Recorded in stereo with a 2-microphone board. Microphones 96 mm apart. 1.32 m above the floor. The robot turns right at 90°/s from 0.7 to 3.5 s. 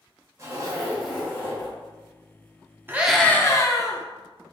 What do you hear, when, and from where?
0.4 s a zipper: 30° right, 1.5 m; by 1.7 s 65° left, 1.5 m
2.9 s a scream: 20° right, 0.7 m; by 4.0 s 35° left, 0.7 m